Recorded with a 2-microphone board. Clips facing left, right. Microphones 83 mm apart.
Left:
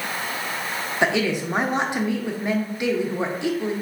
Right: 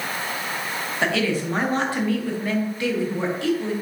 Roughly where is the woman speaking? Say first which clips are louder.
Left 1 dB; centre.